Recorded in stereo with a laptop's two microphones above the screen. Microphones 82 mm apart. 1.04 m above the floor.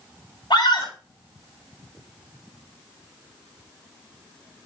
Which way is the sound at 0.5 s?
70° left (ahead or behind).